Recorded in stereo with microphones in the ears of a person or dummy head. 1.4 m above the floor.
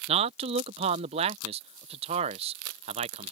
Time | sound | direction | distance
0.1 | a man speaking | 35° right (ahead or behind) | ?